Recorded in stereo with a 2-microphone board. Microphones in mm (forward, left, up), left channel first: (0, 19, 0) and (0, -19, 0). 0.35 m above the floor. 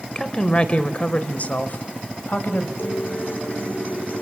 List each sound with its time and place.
0.1 s a woman speaking: 25° left (ahead or behind), 1.8 m; by 2.7 s 50° left (ahead or behind), 2.5 m
2.8 s a guitar: 55° left (ahead or behind), 7 m